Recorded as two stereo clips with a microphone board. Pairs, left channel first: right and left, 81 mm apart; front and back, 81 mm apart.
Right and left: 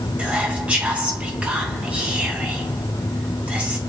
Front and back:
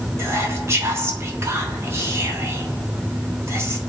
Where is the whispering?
155° left, 1.5 m.